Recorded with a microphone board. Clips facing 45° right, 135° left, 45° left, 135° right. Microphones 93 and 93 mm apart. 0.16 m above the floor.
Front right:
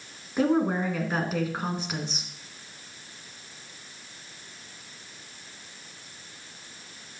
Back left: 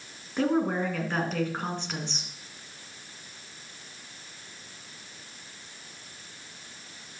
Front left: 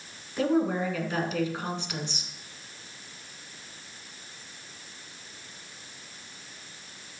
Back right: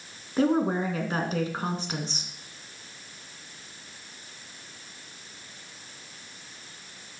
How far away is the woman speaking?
About 2 m.